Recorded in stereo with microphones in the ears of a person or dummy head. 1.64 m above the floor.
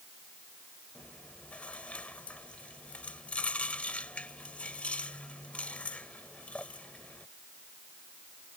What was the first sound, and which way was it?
Chewing, 5° left (ahead or behind).